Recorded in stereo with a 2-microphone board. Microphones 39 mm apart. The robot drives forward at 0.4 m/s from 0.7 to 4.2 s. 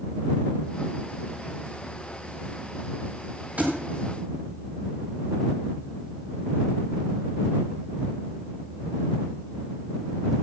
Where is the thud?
40° right (ahead or behind), 5.5 m.